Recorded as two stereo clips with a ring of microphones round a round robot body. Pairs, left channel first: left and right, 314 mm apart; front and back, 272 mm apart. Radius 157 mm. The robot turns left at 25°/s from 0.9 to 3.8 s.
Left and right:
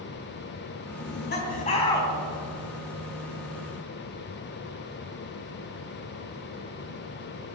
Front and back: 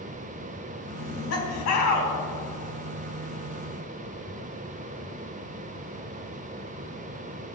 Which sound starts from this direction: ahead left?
Laughter, at 1.0 s.